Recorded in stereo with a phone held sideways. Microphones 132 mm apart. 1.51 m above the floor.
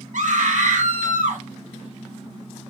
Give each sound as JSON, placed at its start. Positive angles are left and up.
{"t": 0.1, "sound": "a scream", "side_deg": -75, "distance_m": 1.4}